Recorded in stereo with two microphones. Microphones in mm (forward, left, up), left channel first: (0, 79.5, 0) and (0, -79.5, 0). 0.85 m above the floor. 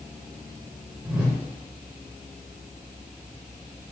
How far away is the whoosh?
About 1.2 m.